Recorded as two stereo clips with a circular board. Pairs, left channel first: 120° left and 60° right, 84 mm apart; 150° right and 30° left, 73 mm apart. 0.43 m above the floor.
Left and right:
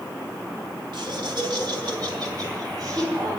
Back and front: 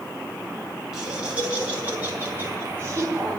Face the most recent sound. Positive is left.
turn(degrees=-15)